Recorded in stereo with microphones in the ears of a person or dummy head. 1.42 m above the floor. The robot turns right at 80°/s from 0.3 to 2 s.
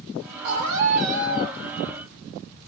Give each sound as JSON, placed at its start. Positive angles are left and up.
{"t": 0.4, "sound": "a scream", "azimuth_deg": -105, "distance_m": 5.0}